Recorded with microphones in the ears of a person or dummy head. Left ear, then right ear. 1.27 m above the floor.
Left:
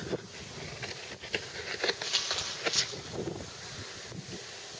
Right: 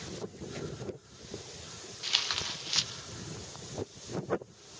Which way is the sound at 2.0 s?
25° right (ahead or behind).